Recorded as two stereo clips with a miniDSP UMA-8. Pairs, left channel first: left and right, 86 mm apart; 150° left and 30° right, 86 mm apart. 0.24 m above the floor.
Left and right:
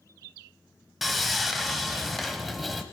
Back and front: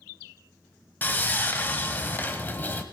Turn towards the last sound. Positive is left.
turn(degrees=180)